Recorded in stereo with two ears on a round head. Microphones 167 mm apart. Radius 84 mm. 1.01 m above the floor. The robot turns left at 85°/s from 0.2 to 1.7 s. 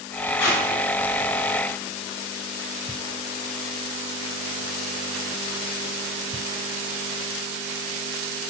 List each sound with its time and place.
0.4 s tape being pulled: 70° left (ahead or behind), 0.8 m; by 0.6 s 80° left, 0.8 m